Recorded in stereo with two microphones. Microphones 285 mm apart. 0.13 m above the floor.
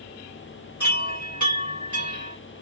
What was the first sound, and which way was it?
A chime, 85° left.